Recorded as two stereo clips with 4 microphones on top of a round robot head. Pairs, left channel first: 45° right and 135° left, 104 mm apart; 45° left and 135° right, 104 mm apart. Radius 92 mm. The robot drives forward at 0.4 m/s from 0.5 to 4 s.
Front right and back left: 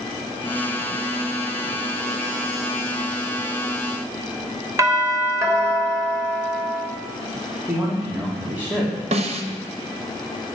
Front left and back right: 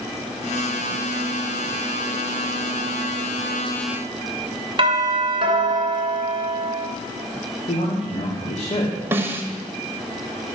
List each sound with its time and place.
4.8 s a doorbell: 170° right, 3 m
7.7 s a man speaking: 55° left, 2.5 m
9.1 s a snare drum: 155° left, 1.4 m